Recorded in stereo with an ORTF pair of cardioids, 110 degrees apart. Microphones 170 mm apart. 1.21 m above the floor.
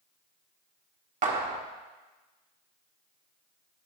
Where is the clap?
45° right, 2.0 m.